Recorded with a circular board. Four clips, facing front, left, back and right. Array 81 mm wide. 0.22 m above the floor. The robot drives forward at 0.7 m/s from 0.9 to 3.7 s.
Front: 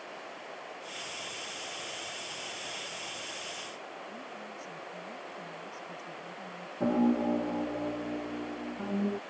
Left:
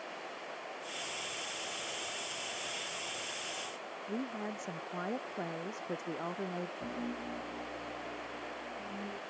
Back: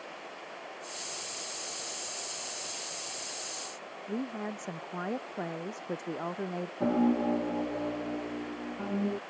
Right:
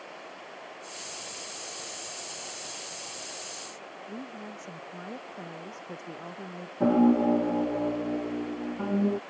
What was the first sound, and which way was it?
A woman speaking, 160° left.